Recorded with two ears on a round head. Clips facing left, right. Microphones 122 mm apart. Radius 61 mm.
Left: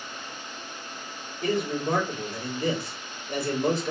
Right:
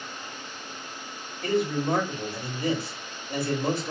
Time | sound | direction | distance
1.4 | a man speaking | 55° left (ahead or behind) | 2.5 m